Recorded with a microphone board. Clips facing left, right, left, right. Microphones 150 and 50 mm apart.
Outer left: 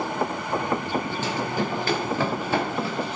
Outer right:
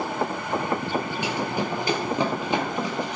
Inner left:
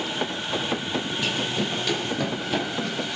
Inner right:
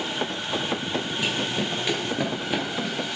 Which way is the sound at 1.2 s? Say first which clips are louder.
Even, even; 15° right (ahead or behind).